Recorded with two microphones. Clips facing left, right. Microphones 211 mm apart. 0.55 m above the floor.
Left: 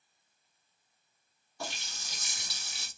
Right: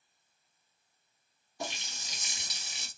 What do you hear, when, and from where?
1.6 s a running tap: 20° right (ahead or behind), 0.7 m